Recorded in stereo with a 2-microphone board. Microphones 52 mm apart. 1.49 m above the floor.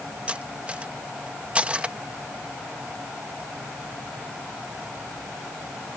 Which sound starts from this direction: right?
Cutlery clinking, at 0.3 s.